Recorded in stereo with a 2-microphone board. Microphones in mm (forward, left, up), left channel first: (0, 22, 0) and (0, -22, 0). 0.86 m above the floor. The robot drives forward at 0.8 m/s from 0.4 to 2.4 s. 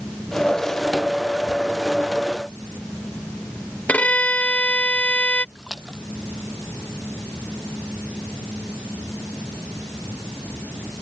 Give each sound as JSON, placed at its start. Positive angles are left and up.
{"t": 3.9, "sound": "a violin", "side_deg": 35}
{"t": 5.5, "sound": "a splash", "side_deg": -5}